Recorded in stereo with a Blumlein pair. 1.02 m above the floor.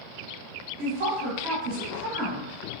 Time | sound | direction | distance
0.8 | a woman speaking | 40° right | 1.4 m